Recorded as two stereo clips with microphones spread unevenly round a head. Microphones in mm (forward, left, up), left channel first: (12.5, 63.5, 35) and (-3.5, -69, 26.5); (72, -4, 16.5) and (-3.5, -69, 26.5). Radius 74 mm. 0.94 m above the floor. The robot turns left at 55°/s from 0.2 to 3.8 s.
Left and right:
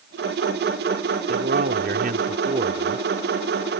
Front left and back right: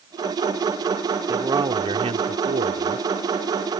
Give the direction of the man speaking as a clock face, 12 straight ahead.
2 o'clock.